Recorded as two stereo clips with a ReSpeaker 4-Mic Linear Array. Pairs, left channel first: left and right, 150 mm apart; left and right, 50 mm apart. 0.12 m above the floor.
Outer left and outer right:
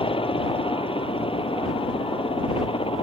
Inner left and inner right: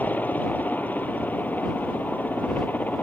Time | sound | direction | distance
0.0 | a helicopter | 40° left (ahead or behind) | ?